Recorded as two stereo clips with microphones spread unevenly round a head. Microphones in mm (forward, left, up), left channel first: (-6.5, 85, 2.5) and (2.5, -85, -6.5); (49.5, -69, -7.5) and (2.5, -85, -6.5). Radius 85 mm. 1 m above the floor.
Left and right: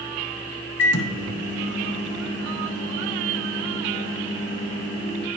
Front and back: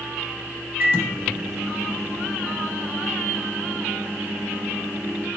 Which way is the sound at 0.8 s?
120° left.